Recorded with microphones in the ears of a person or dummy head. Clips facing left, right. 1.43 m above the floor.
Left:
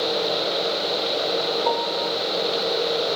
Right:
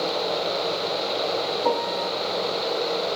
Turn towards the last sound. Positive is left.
turn(degrees=-80)